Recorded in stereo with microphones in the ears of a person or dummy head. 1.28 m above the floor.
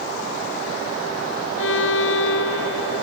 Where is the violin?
75° left (ahead or behind).